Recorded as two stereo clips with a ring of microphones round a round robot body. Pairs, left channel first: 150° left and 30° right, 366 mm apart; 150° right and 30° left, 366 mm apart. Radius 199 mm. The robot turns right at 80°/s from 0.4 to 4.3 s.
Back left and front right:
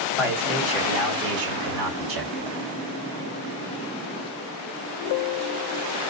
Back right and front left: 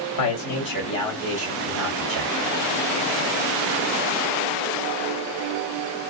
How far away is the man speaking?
About 3 m.